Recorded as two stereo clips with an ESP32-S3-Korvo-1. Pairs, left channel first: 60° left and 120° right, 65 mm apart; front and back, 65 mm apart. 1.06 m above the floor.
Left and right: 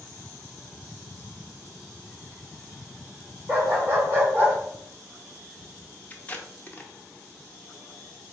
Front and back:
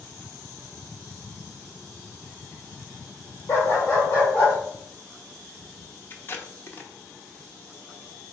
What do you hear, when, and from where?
3.5 s a dog barking: 50° right, 1.6 m; by 4.5 s 65° right, 2.5 m
6.1 s tape being pulled: 15° left, 0.7 m